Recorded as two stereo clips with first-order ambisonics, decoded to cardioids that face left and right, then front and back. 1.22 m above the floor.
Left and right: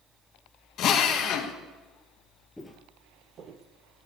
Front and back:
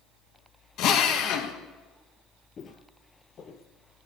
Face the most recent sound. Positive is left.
turn(degrees=-60)